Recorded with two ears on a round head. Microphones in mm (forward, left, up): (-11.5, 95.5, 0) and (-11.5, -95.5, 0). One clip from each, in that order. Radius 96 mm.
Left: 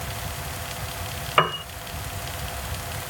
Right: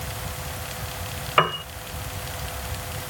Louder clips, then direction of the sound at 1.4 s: Even; centre (ahead or behind).